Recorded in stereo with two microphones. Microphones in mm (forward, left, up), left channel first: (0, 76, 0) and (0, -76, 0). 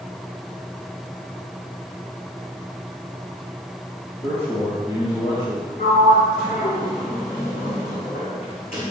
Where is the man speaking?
40° left (ahead or behind), 4.5 m.